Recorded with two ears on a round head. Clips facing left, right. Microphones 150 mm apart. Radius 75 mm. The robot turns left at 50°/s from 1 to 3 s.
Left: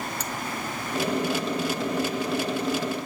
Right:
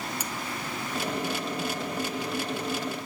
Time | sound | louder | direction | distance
0.2 | cutlery clinking | left 2 dB | 10° right (ahead or behind) | ?